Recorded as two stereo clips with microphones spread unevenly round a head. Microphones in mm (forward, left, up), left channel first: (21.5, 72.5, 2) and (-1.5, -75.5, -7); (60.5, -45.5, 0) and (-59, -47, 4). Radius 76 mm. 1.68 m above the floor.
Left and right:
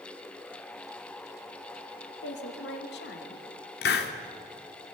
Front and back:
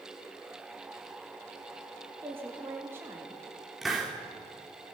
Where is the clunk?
I don't hear a clunk.